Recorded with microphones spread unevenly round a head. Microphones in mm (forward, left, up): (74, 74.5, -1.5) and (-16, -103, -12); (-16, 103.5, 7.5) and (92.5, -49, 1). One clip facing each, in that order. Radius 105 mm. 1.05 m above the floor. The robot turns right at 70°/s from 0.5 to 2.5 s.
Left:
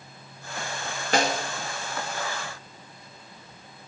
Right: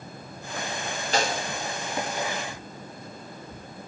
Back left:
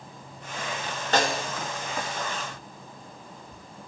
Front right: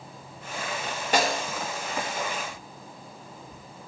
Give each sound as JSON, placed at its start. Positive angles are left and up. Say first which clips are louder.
{"t": 1.1, "sound": "a snare drum", "louder": "left 3 dB, even", "azimuth_deg": 25, "distance_m": 1.5}